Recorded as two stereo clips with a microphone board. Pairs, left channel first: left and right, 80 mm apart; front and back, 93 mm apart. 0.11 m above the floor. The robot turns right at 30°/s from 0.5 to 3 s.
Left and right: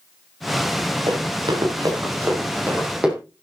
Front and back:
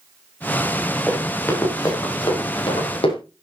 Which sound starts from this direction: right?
Running footsteps, at 1.1 s.